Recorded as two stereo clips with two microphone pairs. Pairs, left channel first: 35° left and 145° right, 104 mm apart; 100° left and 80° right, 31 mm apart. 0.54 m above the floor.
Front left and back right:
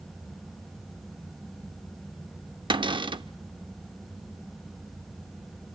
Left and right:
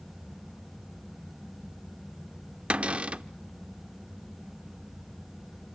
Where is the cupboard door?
120° right, 0.6 m.